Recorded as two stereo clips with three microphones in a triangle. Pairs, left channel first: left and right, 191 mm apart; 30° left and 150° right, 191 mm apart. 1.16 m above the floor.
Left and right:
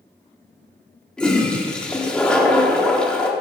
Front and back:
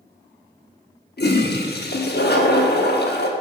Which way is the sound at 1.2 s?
5° left.